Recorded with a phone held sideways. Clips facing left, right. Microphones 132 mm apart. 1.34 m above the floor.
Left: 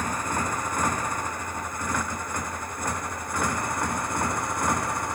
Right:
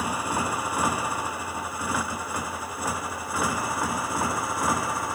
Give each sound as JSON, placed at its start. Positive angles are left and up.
{"t": 0.0, "sound": "a motorcycle", "side_deg": -10}